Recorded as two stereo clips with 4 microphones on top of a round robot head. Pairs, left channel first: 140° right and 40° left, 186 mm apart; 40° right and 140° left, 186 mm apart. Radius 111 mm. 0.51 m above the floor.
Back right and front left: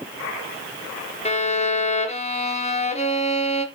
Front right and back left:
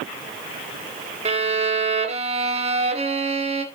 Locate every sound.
1.2 s a violin: straight behind, 1.2 m